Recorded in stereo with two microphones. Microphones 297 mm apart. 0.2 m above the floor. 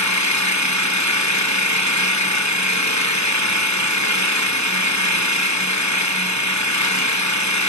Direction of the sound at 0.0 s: 70° left (ahead or behind).